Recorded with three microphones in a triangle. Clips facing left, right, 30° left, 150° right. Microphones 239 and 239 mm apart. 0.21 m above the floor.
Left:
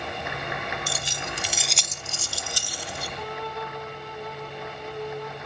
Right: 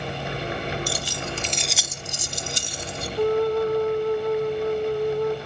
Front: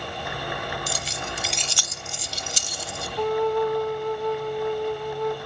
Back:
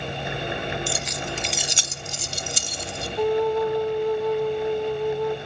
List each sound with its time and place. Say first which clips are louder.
0.9 s keys jangling: right 5 dB, back 3 dB; 40° left, 0.9 m; by 3.1 s 155° right, 1.7 m
3.2 s a flute: right 17 dB, back 1 dB; 70° right, 1.3 m